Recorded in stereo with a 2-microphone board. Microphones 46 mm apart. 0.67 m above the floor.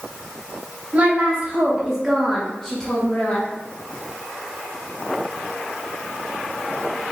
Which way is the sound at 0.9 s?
35° right (ahead or behind).